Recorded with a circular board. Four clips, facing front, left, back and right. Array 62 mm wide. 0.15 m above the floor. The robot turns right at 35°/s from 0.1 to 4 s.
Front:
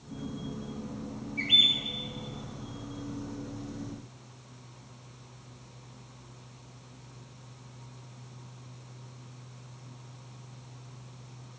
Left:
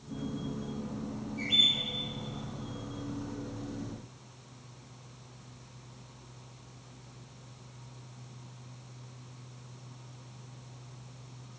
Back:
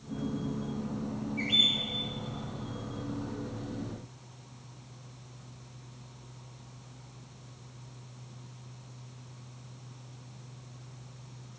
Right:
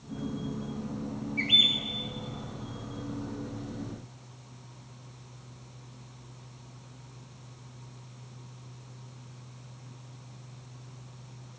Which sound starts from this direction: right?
A bird, at 1.4 s.